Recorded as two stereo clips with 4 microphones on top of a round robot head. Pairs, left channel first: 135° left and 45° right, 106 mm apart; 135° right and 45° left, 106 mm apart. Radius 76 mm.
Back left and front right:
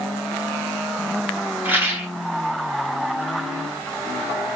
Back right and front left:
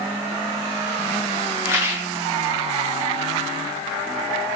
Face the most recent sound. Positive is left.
turn(degrees=5)